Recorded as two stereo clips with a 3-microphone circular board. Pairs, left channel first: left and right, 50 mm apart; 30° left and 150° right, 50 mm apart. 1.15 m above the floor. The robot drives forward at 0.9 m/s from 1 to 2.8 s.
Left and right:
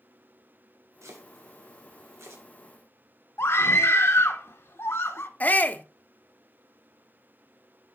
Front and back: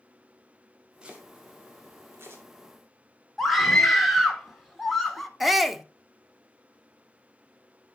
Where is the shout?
125° left, 0.6 m.